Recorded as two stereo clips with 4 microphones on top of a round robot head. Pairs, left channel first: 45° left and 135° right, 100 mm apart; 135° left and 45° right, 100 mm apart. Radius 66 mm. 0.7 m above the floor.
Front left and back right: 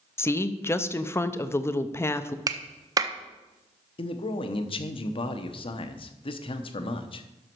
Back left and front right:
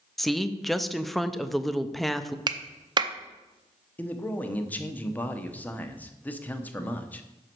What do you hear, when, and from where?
0.2 s a woman speaking: 45° left, 0.6 m
2.5 s a clap: 85° right, 0.8 m
4.0 s a man speaking: 60° left, 1.0 m